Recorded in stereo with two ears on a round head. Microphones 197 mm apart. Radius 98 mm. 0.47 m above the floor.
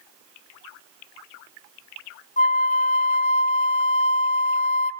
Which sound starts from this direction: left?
A flute, at 2.4 s.